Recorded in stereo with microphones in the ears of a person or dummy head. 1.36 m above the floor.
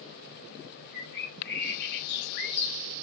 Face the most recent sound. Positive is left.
turn(degrees=55)  # may be behind; listen again after turning